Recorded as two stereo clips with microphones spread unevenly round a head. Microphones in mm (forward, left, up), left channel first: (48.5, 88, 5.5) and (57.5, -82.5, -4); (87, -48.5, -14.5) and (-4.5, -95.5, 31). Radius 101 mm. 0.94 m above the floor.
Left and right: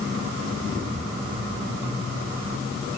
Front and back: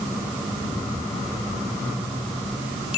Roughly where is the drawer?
No drawer in this recording.